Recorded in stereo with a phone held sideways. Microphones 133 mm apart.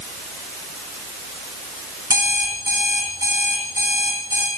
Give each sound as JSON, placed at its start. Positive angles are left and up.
{"t": 2.1, "sound": "an alarm clock", "side_deg": -30, "distance_m": 4.5}